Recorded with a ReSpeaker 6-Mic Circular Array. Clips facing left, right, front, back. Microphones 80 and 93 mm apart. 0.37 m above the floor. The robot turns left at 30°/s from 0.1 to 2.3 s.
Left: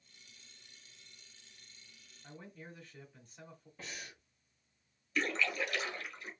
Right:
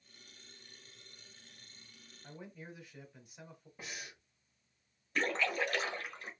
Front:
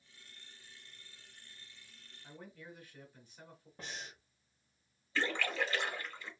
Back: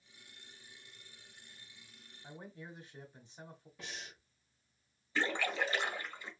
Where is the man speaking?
155° right, 1.0 m.